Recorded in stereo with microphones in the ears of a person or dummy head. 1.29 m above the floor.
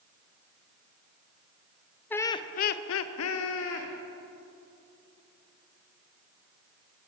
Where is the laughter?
10° left (ahead or behind), 0.6 m; by 3.9 s 65° left (ahead or behind), 1.0 m.